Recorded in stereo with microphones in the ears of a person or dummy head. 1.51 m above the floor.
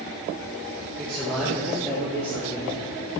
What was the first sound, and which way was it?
A man speaking, centre (ahead or behind).